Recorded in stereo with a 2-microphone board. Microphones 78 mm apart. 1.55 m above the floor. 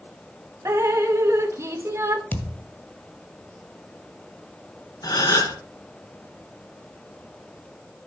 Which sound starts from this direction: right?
Dripping, at 0.7 s.